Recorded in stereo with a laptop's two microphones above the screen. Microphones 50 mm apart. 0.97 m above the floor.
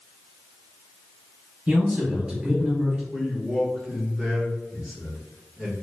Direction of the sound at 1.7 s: 25° right (ahead or behind).